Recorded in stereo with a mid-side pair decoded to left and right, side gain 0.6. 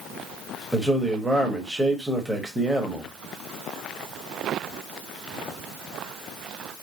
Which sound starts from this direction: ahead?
A man speaking, at 0.7 s.